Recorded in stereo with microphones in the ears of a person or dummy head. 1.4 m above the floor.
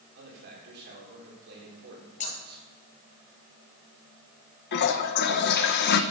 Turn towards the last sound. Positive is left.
turn(degrees=55)  # may be behind; listen again after turning